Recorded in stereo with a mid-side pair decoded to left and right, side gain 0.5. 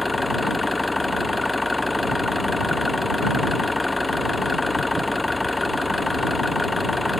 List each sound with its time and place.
0.0 s an engine running: 5° left